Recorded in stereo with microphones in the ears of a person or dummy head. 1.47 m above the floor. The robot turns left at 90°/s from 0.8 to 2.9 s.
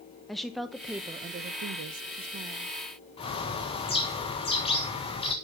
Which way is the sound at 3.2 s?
30° left (ahead or behind).